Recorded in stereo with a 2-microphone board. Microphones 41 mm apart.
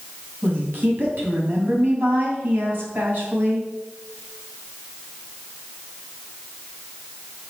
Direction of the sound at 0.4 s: 50° right (ahead or behind).